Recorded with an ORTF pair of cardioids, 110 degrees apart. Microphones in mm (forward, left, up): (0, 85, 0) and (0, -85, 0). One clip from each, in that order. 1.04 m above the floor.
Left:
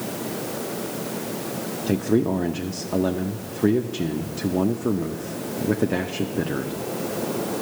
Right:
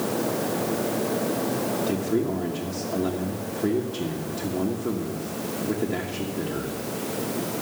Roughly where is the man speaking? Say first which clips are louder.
Left 3 dB; ahead left.